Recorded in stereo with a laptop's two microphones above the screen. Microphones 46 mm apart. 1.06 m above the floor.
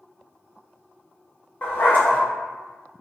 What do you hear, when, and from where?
1.6 s a dog barking: 40° left (ahead or behind), 0.6 m